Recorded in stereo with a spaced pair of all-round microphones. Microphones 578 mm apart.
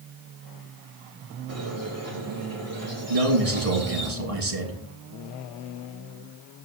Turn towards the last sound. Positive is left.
turn(degrees=-75)  # may be behind; listen again after turning